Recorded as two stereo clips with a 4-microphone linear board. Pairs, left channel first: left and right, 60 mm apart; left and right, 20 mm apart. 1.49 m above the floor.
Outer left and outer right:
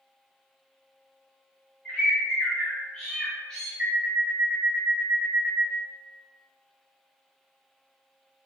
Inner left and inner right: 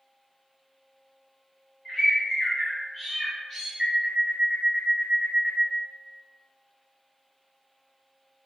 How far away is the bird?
About 1.1 m.